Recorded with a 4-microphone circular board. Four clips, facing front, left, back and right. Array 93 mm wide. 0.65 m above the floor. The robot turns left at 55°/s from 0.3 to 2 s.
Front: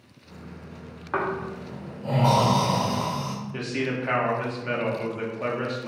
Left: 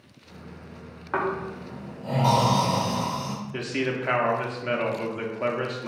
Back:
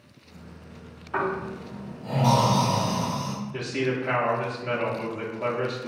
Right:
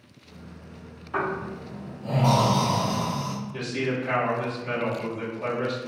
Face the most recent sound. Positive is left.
turn(degrees=80)